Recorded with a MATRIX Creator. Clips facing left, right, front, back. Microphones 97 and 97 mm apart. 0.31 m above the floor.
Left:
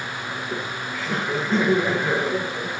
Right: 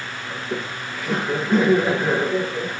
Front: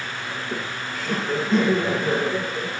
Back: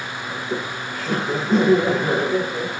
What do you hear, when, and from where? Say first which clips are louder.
0.3 s laughter: right 3 dB, back 5 dB; 165° right, 6 m